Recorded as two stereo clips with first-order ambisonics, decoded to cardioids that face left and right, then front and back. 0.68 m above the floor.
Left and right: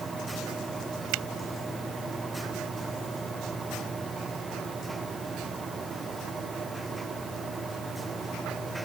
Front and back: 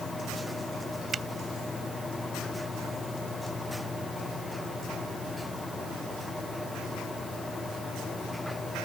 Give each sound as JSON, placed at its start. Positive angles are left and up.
{"t": 1.1, "sound": "a finger snap", "azimuth_deg": -110}